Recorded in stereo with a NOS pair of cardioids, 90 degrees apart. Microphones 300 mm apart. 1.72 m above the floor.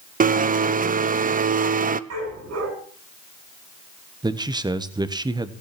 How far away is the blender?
About 0.8 m.